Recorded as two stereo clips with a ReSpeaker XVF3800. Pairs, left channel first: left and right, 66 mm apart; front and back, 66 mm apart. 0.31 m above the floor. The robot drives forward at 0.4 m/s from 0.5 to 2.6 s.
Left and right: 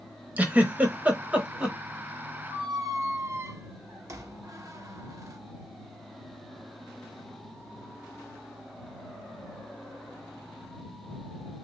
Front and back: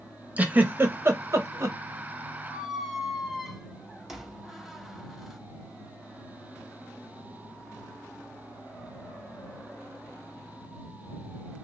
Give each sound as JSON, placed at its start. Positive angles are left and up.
{"t": 0.4, "sound": "a giggle", "azimuth_deg": -135, "distance_m": 0.7}
{"t": 2.5, "sound": "a squeak", "azimuth_deg": -90, "distance_m": 0.6}